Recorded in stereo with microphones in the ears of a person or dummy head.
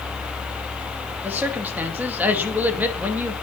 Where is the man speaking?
10° right (ahead or behind), 2 m.